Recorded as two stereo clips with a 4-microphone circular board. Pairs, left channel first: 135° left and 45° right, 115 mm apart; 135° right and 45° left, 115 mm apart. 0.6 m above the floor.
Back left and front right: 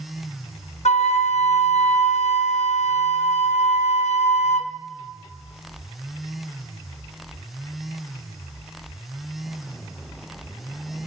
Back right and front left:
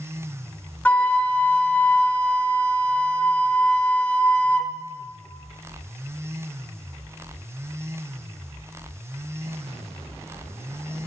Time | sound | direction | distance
0.8 | a flute | 150° left | 0.7 m